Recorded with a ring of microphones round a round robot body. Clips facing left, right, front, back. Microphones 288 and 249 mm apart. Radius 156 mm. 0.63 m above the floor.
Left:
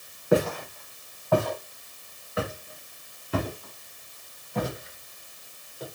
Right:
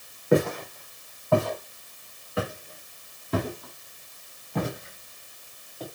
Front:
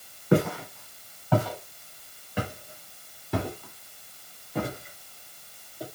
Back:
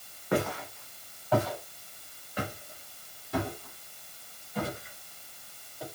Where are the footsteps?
15° right, 5 m; by 5.8 s 65° right, 4.5 m.